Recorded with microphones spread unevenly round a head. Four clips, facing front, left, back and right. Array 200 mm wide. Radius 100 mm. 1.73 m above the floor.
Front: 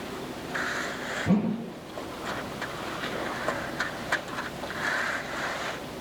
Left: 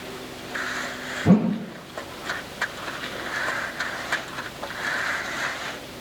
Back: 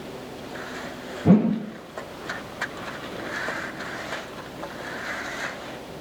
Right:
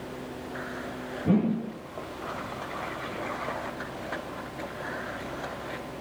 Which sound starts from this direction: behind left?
A whoosh, at 1.2 s.